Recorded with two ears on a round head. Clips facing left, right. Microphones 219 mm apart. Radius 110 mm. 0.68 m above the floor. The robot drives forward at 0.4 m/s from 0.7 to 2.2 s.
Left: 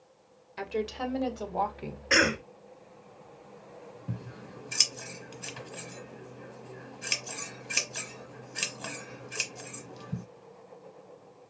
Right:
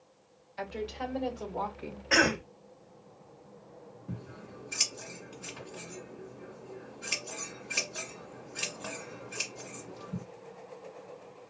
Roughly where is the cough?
Left.